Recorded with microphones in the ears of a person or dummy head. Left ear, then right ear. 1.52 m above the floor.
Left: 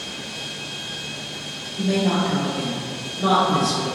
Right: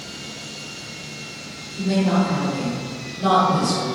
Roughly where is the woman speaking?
Left.